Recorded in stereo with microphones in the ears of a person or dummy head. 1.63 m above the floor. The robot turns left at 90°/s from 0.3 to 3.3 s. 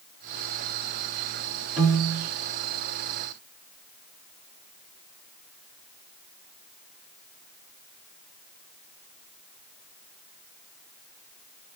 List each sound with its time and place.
1.8 s a piano: 20° right (ahead or behind), 1.6 m; by 2.3 s 5° right (ahead or behind), 1.6 m